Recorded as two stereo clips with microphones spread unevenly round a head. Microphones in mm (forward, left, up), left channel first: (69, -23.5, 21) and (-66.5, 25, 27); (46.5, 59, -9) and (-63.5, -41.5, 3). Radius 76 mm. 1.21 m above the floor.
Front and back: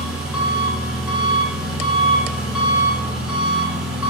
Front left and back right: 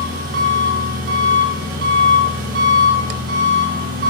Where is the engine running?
115° right, 4.5 m.